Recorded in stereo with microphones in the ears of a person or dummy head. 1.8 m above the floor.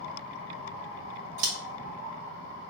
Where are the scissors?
70° right (ahead or behind), 1.6 m.